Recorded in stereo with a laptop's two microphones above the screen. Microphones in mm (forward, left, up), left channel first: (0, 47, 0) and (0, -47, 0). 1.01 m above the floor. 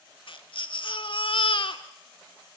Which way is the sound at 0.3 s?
60° left (ahead or behind).